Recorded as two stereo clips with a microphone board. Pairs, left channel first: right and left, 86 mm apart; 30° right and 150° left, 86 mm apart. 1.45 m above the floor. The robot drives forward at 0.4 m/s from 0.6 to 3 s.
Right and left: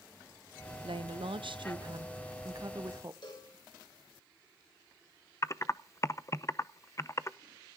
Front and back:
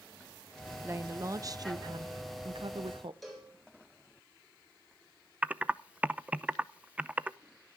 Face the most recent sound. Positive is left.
turn(degrees=-140)